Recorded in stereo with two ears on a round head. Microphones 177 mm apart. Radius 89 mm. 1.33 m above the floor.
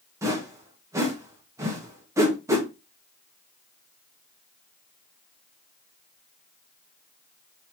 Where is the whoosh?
15° right (ahead or behind), 1.0 m.